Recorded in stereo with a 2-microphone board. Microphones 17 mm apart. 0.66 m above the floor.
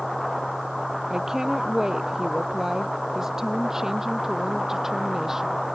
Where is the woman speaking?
35° right (ahead or behind); by 5.6 s 30° right (ahead or behind).